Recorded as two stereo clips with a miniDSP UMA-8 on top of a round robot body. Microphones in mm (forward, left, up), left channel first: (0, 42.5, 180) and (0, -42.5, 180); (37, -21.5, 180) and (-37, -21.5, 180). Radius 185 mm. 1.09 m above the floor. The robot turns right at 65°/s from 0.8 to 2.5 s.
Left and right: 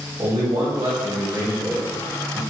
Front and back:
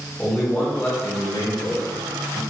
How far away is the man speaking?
About 1.6 m.